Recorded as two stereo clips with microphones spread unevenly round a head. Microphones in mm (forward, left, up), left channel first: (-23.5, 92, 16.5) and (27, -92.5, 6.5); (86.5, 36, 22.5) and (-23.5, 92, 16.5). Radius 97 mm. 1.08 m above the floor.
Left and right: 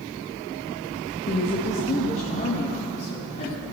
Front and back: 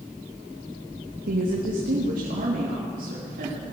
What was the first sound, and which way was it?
A woman speaking, 170° left.